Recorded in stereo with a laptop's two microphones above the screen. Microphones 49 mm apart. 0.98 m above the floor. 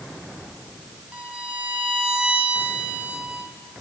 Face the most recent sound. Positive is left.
turn(degrees=-25)  # may be behind; listen again after turning